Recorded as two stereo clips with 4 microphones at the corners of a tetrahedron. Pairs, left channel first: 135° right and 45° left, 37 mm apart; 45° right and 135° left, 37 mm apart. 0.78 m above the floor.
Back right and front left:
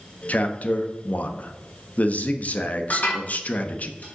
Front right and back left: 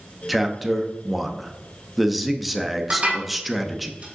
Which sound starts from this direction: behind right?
A man speaking, at 0.3 s.